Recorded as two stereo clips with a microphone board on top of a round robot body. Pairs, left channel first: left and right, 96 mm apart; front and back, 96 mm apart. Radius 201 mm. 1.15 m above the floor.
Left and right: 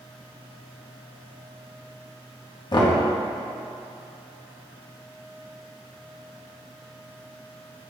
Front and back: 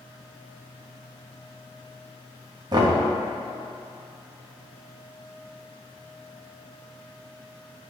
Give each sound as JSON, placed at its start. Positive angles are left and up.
{"t": 2.7, "sound": "knocking", "azimuth_deg": 130, "distance_m": 0.8}